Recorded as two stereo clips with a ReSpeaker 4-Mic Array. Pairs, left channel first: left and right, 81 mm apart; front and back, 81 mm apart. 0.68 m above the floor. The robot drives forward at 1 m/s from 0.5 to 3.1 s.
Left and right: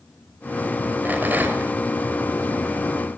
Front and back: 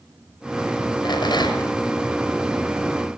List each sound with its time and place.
1.1 s a rattle: 20° right, 6 m; by 1.8 s 25° right, 5.5 m